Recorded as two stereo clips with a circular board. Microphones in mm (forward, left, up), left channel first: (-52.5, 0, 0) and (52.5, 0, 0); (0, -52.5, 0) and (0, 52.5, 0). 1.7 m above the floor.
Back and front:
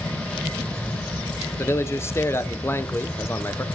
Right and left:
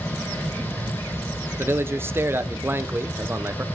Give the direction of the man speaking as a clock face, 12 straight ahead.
7 o'clock.